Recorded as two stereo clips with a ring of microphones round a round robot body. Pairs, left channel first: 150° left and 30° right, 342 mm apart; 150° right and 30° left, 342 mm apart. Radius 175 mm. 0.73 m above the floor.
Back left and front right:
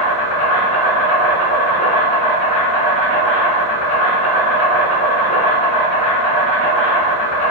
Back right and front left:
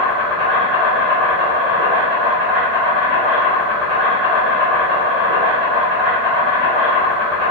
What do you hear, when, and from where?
0.0 s an insect: 120° left, 1.1 m